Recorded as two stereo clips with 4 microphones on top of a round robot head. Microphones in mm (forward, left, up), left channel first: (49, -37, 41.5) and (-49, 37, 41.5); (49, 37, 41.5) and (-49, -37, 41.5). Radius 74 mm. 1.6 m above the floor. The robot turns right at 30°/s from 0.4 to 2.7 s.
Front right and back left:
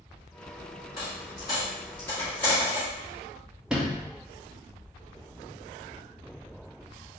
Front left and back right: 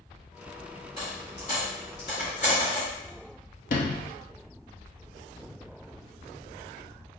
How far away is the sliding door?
About 0.7 m.